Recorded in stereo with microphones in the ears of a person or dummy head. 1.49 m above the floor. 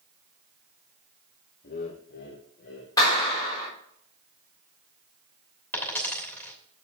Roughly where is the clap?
Left.